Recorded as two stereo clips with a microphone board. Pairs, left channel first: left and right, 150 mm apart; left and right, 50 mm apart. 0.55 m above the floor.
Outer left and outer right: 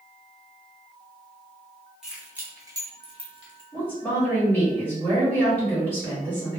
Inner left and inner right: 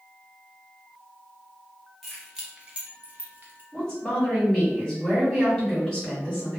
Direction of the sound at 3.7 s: 15° left (ahead or behind).